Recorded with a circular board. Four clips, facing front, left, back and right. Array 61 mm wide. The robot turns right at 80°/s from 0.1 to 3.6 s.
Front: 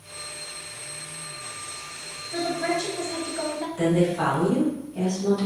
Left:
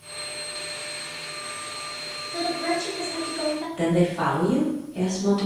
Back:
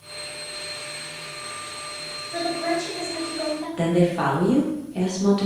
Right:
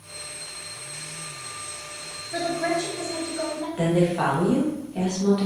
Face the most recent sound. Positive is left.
turn(degrees=-160)